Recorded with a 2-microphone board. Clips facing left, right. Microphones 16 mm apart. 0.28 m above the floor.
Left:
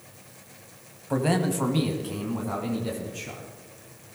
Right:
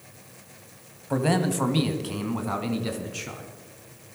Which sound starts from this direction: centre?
A man speaking, at 1.1 s.